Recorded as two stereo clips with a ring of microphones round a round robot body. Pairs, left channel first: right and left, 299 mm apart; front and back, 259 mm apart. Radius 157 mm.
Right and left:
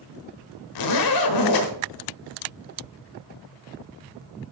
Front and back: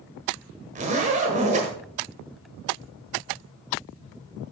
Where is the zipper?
110° right, 1.3 m.